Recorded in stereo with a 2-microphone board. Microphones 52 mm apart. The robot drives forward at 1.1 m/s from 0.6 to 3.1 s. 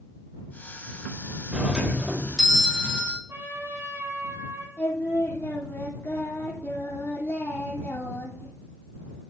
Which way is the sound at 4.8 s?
45° left (ahead or behind).